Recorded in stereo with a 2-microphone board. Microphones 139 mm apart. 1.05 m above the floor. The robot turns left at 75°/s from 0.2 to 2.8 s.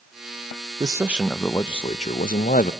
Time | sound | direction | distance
0.8 | a man speaking | 145° right | 0.5 m